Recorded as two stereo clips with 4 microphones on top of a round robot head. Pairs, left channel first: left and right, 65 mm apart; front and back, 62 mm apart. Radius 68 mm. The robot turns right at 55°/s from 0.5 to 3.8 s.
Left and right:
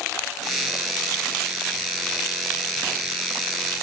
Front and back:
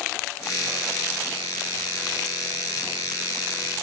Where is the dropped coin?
I don't hear a dropped coin.